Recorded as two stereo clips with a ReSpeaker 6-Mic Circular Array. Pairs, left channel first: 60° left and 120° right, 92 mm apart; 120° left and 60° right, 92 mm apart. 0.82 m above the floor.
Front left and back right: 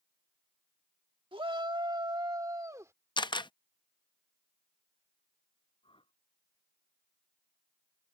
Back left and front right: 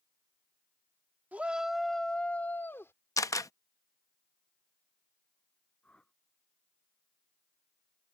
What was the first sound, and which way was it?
A shout, 130° right.